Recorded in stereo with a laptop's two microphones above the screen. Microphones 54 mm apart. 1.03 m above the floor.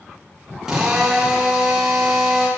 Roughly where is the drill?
Centre.